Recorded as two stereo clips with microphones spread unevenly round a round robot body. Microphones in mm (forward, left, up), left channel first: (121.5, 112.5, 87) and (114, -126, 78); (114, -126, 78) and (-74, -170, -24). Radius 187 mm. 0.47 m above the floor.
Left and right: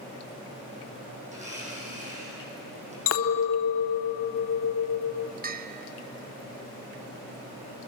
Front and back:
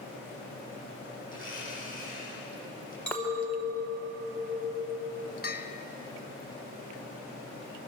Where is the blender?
30° right, 9.5 m.